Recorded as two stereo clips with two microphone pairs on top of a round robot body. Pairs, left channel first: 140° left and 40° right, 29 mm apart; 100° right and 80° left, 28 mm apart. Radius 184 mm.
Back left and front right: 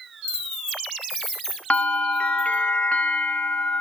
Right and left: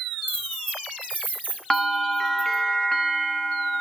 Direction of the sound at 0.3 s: 65° left.